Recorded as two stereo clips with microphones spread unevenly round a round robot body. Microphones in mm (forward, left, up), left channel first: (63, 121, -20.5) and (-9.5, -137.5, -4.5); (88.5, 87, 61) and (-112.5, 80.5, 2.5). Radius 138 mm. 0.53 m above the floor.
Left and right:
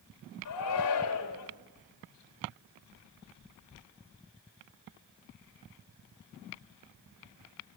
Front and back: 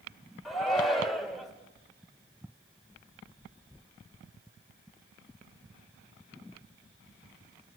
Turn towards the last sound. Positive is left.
turn(degrees=100)